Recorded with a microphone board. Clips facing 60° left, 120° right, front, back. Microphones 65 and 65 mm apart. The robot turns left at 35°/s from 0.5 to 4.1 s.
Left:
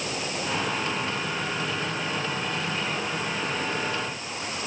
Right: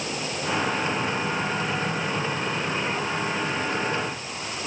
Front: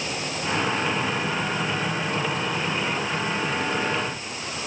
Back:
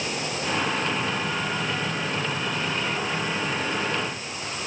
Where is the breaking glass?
No breaking glass in this recording.